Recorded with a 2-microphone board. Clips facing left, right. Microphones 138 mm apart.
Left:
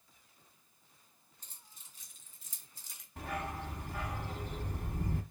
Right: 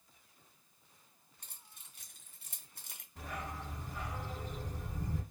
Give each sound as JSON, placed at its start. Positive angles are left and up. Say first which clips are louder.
{"t": 1.4, "sound": "keys jangling", "louder": "right 1 dB", "side_deg": -65, "distance_m": 1.5}
{"t": 3.2, "sound": "a dog barking", "louder": "left 4 dB", "side_deg": 70, "distance_m": 0.9}